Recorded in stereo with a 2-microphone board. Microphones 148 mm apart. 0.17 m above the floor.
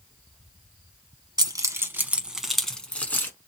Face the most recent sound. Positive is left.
turn(degrees=15)  # may be behind; listen again after turning